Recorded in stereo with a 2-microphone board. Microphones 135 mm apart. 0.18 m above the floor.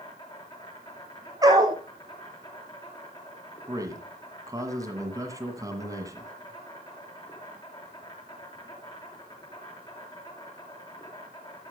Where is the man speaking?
25° right (ahead or behind), 1.8 m.